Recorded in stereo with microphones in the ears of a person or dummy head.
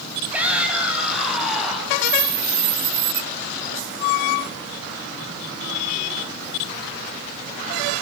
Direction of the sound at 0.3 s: 10° right (ahead or behind).